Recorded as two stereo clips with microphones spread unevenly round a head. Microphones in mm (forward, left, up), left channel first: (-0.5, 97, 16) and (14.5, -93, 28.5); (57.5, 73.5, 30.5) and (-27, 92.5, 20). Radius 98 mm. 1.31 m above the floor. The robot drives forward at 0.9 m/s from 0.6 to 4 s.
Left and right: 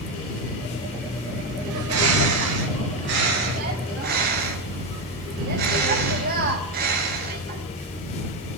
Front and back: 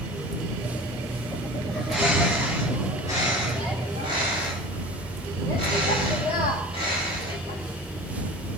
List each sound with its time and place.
1.7 s a bird: 100° right, 3.5 m; by 7.6 s 130° right, 4 m